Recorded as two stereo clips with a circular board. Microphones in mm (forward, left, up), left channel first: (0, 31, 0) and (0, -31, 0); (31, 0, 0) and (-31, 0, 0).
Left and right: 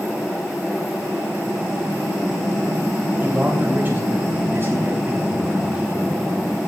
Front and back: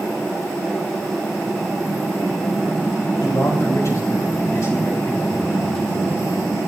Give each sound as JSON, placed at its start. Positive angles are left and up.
{"t": 3.2, "sound": "a man speaking", "azimuth_deg": -30, "distance_m": 4.0}